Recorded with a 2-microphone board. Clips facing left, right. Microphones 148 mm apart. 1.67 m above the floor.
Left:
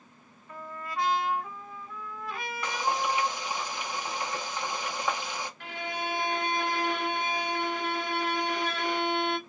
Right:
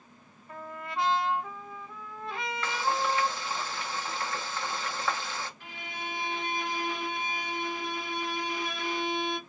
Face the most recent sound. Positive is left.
turn(degrees=80)